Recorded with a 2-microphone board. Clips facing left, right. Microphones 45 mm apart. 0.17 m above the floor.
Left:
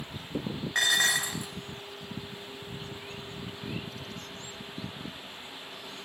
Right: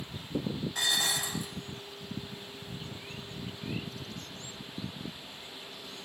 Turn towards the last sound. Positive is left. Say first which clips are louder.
# left 7 dB
turn(degrees=60)  # may be behind; listen again after turning